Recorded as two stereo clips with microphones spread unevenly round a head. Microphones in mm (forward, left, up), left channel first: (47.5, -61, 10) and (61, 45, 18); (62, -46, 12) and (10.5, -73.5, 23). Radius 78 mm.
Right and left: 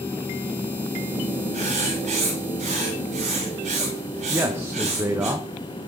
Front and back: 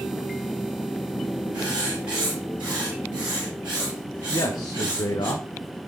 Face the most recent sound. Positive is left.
turn(degrees=15)